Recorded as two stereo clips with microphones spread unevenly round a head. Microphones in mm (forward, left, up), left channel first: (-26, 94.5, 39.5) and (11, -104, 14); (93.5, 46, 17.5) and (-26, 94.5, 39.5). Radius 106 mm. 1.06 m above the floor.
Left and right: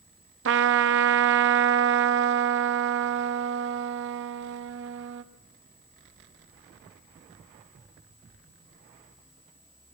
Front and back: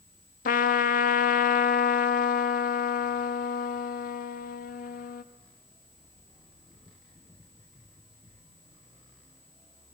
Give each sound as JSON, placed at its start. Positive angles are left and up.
{"t": 0.5, "sound": "a trumpet", "azimuth_deg": -50, "distance_m": 1.0}